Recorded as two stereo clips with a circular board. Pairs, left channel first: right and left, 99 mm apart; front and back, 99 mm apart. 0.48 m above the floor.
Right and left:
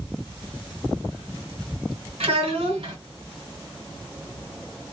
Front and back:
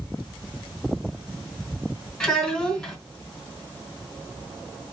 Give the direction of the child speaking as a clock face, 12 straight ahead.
9 o'clock.